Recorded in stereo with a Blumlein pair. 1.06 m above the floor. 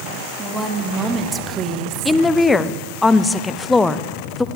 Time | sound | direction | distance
0.4 | a woman speaking | 5° right | 2 m
2.0 | a woman speaking | 10° left | 0.7 m